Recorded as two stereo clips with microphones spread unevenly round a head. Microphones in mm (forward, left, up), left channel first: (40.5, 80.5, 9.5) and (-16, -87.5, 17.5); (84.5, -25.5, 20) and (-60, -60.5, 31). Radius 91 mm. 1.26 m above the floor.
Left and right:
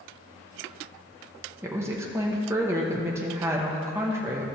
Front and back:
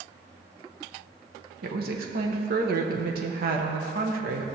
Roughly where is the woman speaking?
Behind.